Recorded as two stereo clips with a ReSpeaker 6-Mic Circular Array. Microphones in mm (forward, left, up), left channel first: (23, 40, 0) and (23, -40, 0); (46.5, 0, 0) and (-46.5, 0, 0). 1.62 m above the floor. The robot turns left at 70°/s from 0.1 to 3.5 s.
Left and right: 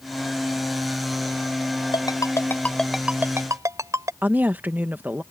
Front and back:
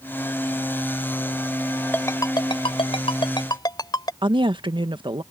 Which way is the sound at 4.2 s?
155° right.